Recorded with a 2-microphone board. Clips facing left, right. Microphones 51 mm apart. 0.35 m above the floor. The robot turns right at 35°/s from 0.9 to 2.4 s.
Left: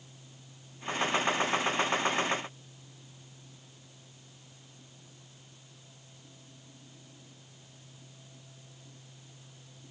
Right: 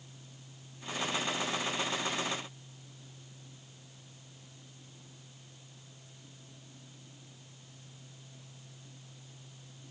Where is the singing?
No singing in this recording.